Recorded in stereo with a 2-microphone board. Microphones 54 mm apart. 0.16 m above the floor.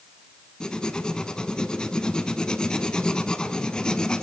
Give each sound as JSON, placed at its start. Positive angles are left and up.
{"t": 0.6, "sound": "writing", "side_deg": 15, "distance_m": 1.0}